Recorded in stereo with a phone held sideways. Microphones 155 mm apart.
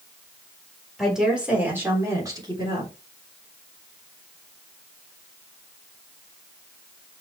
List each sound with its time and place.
1.0 s a woman speaking: centre (ahead or behind), 4 m; by 2.9 s 35° right (ahead or behind), 3.5 m